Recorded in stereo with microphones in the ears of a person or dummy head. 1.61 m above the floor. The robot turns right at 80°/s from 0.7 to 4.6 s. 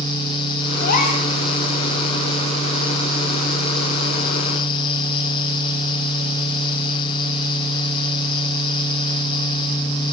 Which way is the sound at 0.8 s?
115° left.